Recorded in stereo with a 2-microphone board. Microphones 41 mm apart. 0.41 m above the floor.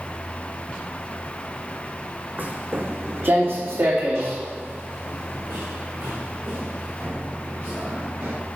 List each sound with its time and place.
2.4 s footsteps: 45° right (ahead or behind), 1.3 m; by 8.3 s 75° right (ahead or behind), 3.5 m